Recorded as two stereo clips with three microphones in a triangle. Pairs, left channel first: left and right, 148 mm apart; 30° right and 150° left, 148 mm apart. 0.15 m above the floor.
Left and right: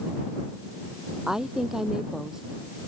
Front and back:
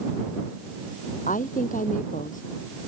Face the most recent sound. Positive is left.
turn(degrees=-5)